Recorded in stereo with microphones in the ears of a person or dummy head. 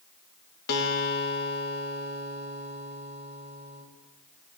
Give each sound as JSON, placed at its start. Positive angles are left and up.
{"t": 0.7, "sound": "a guitar", "side_deg": 50, "distance_m": 1.4}